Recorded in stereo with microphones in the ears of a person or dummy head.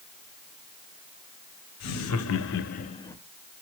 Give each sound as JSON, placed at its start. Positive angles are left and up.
{"t": 1.8, "sound": "laughter", "side_deg": 80, "distance_m": 0.9}